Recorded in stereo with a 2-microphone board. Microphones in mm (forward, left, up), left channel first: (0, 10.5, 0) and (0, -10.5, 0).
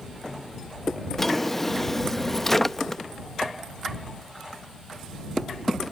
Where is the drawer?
15° left (ahead or behind).